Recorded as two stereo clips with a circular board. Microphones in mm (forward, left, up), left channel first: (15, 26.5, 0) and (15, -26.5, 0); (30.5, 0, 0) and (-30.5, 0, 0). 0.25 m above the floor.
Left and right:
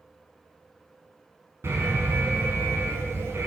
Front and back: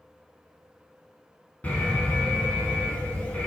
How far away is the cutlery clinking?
No cutlery clinking in this recording.